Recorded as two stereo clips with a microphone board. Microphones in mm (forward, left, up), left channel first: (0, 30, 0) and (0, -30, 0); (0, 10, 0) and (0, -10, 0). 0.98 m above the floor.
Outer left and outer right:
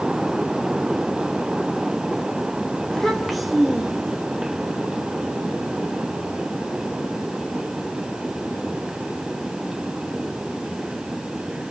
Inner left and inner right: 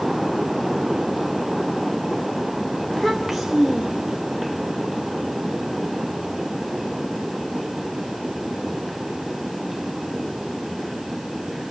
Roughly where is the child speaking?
Centre.